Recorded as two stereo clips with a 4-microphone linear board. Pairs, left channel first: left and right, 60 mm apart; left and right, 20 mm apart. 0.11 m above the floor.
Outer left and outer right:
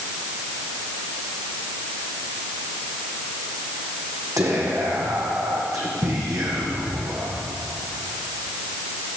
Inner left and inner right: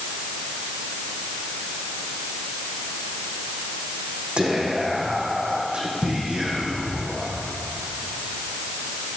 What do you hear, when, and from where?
4.4 s whispering: 70° right (ahead or behind), 5 m